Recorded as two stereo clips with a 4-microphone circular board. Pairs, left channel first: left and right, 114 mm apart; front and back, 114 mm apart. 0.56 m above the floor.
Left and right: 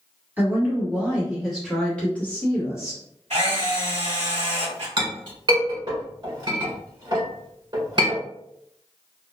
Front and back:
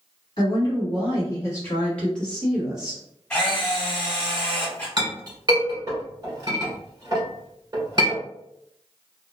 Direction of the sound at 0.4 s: 25° right.